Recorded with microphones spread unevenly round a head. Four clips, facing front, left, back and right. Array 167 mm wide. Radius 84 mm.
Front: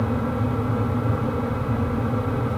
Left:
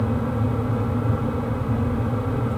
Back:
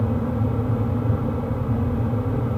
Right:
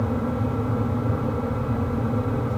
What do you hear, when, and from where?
Only background noise.